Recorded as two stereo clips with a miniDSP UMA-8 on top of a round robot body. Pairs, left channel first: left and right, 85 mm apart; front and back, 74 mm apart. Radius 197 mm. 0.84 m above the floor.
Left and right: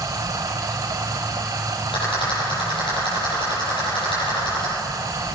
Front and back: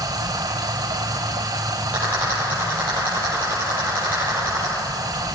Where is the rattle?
115° left, 9.5 m.